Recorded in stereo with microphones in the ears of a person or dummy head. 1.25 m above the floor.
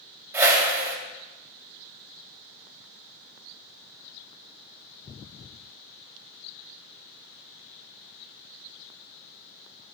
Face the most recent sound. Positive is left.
turn(degrees=-10)  # may be behind; listen again after turning